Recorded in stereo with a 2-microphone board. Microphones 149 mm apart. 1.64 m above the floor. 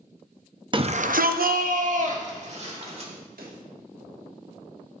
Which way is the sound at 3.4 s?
80° right.